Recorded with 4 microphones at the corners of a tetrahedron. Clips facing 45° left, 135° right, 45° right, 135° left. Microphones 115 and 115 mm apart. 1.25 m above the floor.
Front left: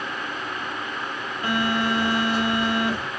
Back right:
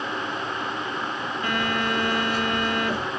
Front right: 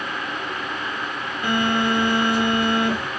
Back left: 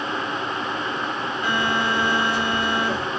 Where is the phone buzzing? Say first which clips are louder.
Front left 3 dB, front right 3 dB; 5° right, 1.8 m.